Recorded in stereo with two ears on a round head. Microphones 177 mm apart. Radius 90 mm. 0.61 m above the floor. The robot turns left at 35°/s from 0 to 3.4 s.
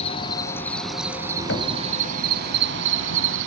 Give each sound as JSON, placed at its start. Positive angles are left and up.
{"t": 0.0, "sound": "an insect", "azimuth_deg": 30, "distance_m": 1.0}
{"t": 1.5, "sound": "knocking", "side_deg": 60, "distance_m": 3.0}